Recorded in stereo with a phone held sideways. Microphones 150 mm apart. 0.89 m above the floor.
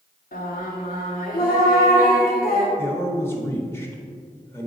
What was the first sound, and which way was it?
Singing, 75° left (ahead or behind).